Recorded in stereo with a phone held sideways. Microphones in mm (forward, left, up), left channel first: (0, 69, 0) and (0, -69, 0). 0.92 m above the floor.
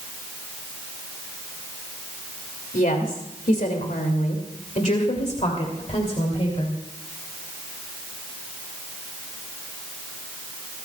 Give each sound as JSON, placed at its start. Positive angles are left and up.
{"t": 2.7, "sound": "a woman speaking", "side_deg": 85, "distance_m": 2.5}